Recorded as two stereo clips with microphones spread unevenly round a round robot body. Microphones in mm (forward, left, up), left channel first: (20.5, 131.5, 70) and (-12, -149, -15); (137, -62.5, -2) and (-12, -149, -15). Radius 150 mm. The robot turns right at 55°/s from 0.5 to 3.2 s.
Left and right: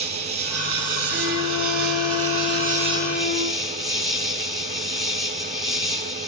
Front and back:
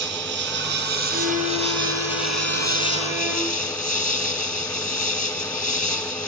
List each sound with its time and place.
0.0 s an insect: 160° right, 4.5 m; by 6.3 s 10° right, 4.5 m
1.1 s a violin: 170° left, 7 m; by 3.7 s 75° right, 7 m